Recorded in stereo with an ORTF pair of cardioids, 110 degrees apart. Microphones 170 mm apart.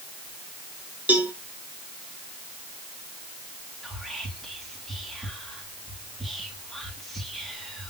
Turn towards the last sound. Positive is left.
turn(degrees=0)